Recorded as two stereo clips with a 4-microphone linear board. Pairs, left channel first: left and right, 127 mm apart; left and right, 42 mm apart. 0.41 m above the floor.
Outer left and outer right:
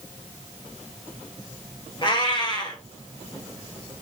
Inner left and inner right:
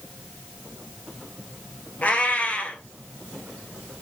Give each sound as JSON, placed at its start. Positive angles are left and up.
{"t": 2.0, "sound": "a cat meowing", "side_deg": 35, "distance_m": 1.2}